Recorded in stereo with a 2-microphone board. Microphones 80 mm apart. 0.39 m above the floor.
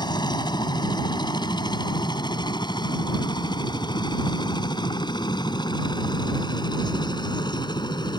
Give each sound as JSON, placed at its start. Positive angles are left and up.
{"t": 0.0, "sound": "a helicopter", "side_deg": 65}